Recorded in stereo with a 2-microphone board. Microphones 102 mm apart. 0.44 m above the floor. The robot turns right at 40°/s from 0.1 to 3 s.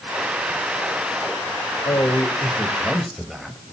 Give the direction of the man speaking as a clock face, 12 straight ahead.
7 o'clock.